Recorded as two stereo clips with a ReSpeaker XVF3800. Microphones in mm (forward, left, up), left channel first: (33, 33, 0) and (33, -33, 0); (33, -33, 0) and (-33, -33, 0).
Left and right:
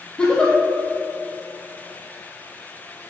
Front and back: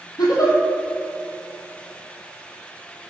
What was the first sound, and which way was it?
A giggle, 10° left.